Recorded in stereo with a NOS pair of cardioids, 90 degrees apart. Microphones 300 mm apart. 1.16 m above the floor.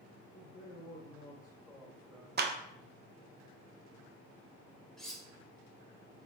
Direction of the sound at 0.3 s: 55° left.